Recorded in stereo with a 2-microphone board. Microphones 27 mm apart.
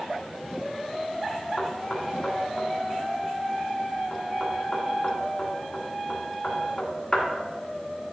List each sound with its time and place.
1.6 s knocking: 20° left (ahead or behind), 1.5 m